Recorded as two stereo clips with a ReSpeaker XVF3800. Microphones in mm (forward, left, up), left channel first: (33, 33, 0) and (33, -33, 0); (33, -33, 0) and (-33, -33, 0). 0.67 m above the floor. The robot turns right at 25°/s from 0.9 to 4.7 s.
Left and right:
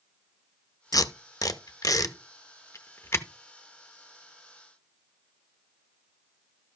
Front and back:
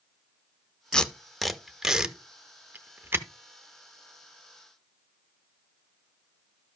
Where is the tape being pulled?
75° left, 0.7 m; by 3.3 s 135° left, 0.7 m.